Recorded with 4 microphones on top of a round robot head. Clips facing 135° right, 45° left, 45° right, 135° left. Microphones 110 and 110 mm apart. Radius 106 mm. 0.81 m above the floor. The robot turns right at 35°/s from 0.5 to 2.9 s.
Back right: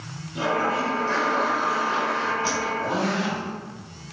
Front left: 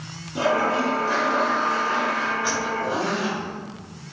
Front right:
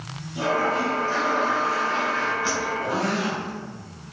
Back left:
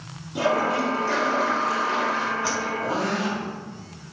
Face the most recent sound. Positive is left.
turn(degrees=-170)